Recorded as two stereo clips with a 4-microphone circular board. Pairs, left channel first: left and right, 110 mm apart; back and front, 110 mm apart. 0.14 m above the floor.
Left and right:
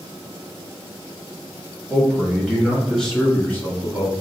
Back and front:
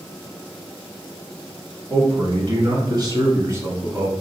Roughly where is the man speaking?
Ahead.